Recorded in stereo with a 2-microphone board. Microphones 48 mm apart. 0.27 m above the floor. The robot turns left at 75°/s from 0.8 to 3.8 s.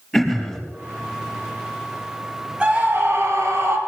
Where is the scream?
20° right, 5 m; by 3.8 s 110° right, 5 m.